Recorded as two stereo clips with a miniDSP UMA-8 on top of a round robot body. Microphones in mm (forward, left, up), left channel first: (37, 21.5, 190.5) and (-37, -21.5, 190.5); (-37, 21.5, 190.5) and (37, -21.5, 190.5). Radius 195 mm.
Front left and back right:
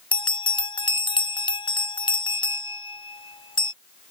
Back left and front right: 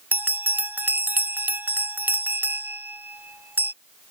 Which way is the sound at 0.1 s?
35° left.